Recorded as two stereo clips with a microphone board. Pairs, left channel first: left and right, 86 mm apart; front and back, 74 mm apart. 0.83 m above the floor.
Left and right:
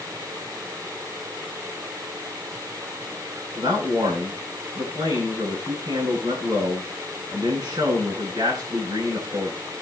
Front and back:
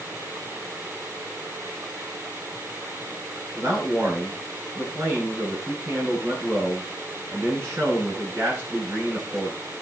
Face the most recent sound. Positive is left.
turn(degrees=-125)